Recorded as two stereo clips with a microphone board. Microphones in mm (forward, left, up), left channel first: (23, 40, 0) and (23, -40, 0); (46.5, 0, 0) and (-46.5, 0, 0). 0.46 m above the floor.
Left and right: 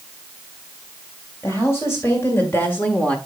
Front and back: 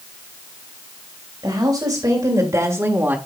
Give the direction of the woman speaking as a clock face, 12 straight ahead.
7 o'clock.